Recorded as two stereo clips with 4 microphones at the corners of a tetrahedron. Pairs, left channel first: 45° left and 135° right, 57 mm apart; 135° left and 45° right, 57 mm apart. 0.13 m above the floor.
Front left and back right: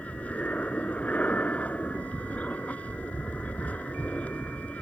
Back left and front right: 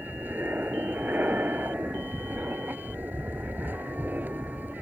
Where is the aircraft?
10° right.